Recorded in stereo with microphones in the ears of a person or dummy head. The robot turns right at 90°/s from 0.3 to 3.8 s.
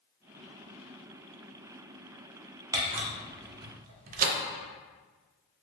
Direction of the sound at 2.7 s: 20° right (ahead or behind).